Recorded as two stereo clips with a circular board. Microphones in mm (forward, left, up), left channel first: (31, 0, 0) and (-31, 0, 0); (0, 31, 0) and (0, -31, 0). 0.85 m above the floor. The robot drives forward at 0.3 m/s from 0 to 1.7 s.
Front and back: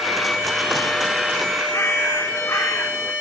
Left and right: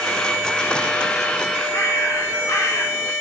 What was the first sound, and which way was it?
A bird, 45° left.